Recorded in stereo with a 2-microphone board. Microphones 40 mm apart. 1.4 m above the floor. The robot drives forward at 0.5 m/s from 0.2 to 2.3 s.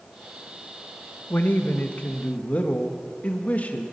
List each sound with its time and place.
1.3 s a man speaking: 55° left (ahead or behind), 1.0 m; by 3.9 s 40° left (ahead or behind), 1.4 m